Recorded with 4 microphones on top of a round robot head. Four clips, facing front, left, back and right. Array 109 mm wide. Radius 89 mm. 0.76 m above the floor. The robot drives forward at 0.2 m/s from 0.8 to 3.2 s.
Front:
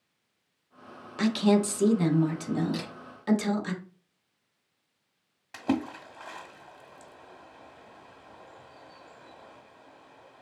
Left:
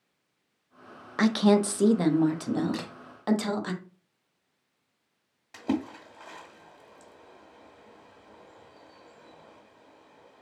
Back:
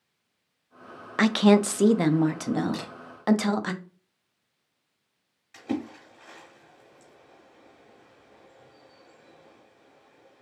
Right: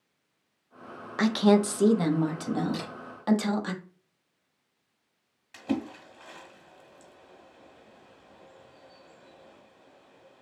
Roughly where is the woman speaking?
Behind.